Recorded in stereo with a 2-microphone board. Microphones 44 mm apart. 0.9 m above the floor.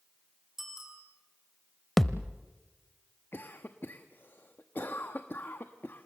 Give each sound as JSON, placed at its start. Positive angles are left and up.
{"t": 0.6, "sound": "a bicycle bell", "side_deg": -10, "distance_m": 5.5}
{"t": 2.0, "sound": "a thud", "side_deg": 5, "distance_m": 0.7}
{"t": 3.3, "sound": "a cough", "side_deg": 55, "distance_m": 1.0}